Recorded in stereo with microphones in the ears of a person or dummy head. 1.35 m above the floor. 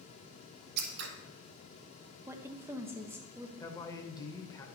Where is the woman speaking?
15° right (ahead or behind), 0.9 m.